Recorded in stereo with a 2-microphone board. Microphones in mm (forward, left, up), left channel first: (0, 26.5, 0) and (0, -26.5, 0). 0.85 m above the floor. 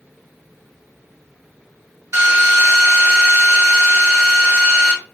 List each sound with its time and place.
2.1 s a drill: 60° right (ahead or behind), 1.2 m